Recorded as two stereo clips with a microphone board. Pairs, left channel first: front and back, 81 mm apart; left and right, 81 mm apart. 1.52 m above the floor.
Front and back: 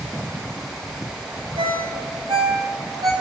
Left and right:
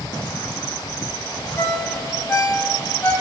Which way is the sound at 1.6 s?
160° left.